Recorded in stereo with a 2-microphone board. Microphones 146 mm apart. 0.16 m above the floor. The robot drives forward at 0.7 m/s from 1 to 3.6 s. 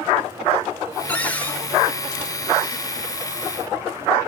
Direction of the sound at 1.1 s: 10° left (ahead or behind).